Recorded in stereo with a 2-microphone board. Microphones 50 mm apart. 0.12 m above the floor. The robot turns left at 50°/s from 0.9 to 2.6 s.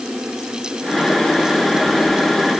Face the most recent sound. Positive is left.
No sound to turn to.